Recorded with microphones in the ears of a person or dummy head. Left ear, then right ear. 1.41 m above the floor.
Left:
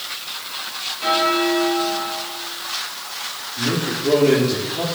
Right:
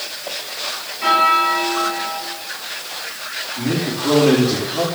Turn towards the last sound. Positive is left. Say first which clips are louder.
# left 1 dB
turn(degrees=-35)  # may be behind; listen again after turning